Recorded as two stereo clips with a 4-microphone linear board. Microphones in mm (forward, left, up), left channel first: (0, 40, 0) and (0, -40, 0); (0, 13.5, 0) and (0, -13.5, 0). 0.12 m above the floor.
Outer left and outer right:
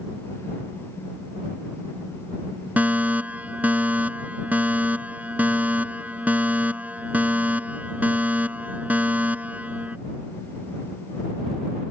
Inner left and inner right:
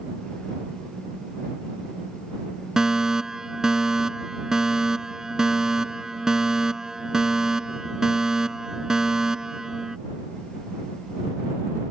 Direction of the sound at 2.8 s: 20° right (ahead or behind).